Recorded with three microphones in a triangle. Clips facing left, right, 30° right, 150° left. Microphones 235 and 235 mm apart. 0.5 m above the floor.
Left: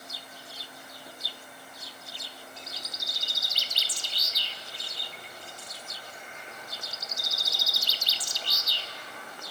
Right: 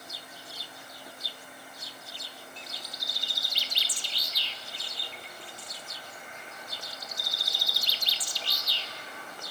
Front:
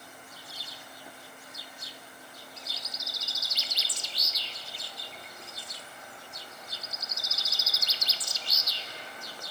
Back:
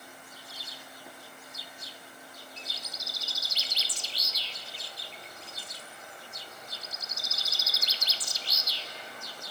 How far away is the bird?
About 1.1 m.